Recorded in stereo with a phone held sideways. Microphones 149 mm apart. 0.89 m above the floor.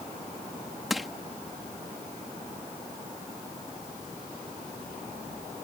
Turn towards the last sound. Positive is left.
turn(degrees=0)  # may be behind; listen again after turning